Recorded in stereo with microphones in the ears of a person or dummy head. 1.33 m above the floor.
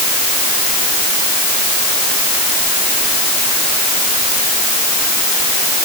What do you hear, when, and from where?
Only background noise.